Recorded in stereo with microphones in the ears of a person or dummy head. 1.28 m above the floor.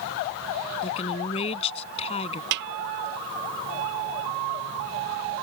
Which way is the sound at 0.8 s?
35° left (ahead or behind).